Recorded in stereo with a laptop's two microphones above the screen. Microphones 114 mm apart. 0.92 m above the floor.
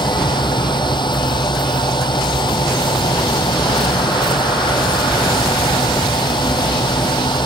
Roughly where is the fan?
Left.